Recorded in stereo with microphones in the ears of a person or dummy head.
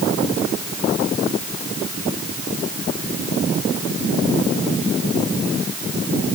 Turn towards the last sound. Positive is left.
No sound to turn to.